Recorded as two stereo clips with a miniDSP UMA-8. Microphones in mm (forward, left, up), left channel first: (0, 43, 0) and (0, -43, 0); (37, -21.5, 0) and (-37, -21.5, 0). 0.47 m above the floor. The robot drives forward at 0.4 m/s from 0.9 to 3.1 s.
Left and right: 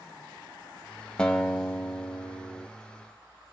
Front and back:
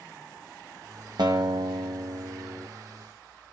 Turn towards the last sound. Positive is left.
turn(degrees=175)